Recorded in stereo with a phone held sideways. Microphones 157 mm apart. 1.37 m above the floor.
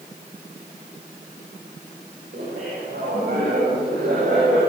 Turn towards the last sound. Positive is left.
turn(degrees=-75)  # may be behind; listen again after turning